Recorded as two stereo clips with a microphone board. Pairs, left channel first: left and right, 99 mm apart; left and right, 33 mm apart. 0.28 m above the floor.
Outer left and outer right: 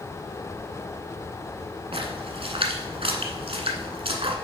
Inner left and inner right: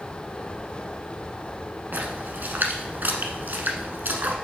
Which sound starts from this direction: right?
A splash, at 1.9 s.